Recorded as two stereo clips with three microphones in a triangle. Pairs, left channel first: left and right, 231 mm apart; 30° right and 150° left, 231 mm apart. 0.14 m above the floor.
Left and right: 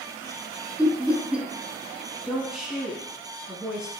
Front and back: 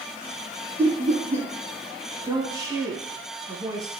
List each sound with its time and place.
0.8 s laughter: 170° right, 1.3 m
2.2 s a woman speaking: 170° right, 1.2 m